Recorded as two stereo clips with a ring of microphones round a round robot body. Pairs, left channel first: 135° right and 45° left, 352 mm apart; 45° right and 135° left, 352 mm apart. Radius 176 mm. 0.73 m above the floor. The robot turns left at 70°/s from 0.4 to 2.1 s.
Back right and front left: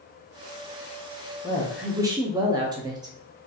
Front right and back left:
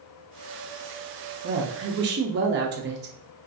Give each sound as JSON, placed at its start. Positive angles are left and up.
{"t": 1.4, "sound": "a woman speaking", "azimuth_deg": 160, "distance_m": 0.6}